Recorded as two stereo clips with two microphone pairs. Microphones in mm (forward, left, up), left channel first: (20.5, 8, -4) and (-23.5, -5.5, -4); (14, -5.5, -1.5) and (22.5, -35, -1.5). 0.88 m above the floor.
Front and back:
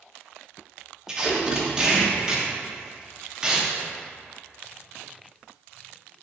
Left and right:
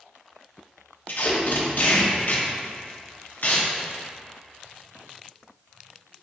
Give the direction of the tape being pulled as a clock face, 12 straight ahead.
8 o'clock.